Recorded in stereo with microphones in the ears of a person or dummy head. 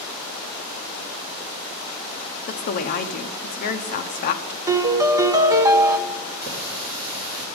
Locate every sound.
2.5 s a woman speaking: 45° left (ahead or behind), 0.8 m
4.7 s a piano: 20° right (ahead or behind), 0.7 m
6.4 s a running tap: 20° right (ahead or behind), 3 m